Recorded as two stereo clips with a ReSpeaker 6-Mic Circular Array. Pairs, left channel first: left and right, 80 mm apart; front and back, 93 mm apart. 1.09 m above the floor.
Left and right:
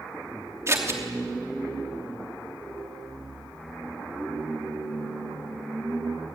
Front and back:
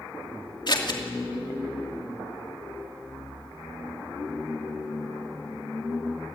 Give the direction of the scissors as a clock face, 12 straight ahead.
1 o'clock.